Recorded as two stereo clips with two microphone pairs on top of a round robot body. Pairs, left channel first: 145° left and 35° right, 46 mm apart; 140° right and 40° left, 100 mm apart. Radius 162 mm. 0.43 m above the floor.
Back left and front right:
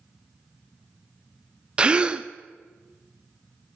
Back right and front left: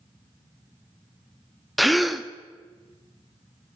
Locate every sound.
1.8 s a gasp: 50° right, 0.5 m